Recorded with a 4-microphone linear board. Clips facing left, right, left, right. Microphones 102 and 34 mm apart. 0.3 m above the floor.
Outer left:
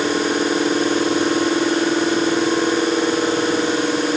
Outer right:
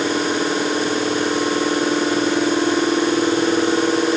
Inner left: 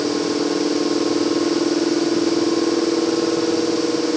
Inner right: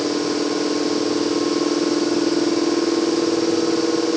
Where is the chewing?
No chewing in this recording.